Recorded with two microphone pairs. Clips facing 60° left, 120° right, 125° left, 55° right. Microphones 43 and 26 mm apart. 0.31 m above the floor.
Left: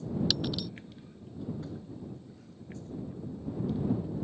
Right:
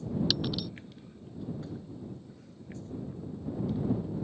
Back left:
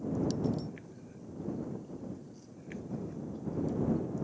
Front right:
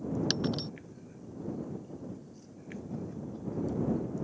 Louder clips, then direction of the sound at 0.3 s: Even, front right 2 dB; 30° right.